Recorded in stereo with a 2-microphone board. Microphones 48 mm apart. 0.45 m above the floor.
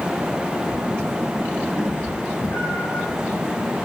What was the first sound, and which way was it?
A cat meowing, 65° left (ahead or behind).